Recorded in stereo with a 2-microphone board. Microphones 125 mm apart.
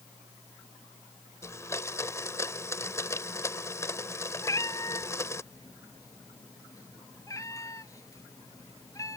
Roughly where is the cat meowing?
Left.